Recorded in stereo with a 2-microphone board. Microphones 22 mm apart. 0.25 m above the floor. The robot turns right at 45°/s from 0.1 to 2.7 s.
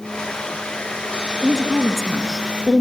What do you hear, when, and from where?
1.4 s a woman speaking: 25° right, 3 m; by 2.8 s 30° left, 3 m